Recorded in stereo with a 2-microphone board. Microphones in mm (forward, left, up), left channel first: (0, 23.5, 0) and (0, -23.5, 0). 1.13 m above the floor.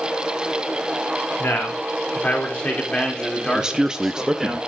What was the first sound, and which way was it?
A man speaking, 55° left (ahead or behind).